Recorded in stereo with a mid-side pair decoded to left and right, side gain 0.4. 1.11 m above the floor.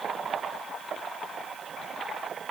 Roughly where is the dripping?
No dripping in this recording.